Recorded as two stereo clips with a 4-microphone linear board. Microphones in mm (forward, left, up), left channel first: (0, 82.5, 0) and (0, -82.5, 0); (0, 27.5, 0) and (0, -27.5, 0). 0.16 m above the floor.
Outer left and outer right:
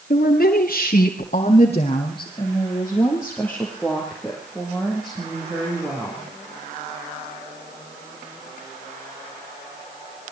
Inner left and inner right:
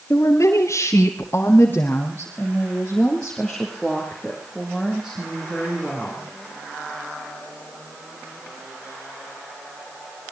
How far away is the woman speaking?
About 3 m.